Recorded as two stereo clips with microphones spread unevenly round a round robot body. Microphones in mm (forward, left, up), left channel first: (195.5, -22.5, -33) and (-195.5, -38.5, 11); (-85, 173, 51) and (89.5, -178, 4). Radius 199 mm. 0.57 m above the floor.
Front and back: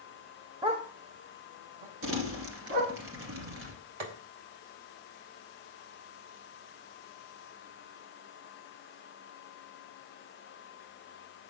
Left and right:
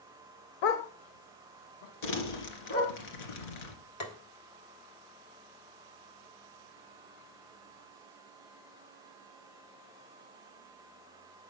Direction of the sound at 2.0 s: 125° left.